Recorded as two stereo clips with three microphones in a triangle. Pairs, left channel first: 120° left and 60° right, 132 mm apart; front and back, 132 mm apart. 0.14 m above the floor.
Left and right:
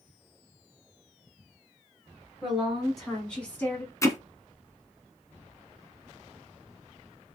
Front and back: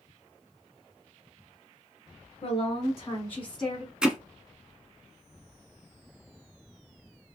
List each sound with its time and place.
2.4 s a woman speaking: 20° left, 1.4 m; by 3.9 s 100° left, 1.1 m
4.0 s hammering: 105° left, 0.6 m